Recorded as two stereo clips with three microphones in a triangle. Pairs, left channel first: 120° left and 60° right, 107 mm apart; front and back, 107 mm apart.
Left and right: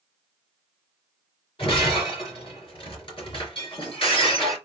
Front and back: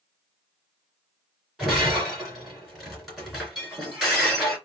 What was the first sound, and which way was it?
Breaking glass, 90° left.